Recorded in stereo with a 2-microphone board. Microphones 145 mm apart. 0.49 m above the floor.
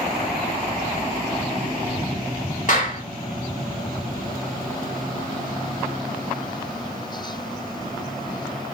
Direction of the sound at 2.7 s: 55° left (ahead or behind).